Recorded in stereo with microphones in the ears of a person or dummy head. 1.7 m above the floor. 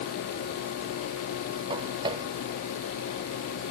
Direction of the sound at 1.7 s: 30° right (ahead or behind).